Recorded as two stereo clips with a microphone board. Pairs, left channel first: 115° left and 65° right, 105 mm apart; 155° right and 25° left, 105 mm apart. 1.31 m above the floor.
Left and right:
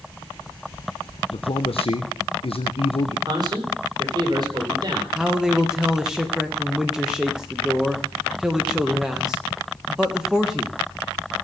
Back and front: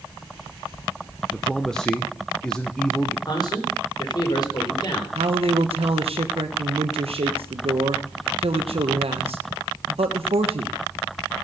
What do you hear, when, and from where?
1.3 s a man speaking: 120° left, 1.0 m
3.3 s a man speaking: 115° right, 4 m
5.2 s a man speaking: 15° left, 1.3 m